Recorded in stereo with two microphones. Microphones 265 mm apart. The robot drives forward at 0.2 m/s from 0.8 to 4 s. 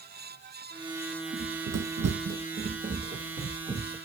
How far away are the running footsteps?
About 0.6 m.